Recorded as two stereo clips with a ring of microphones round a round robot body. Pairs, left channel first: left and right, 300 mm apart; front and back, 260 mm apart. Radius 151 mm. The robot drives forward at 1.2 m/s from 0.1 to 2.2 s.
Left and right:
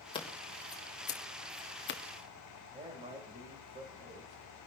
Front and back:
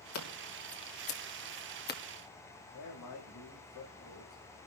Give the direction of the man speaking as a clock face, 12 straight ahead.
1 o'clock.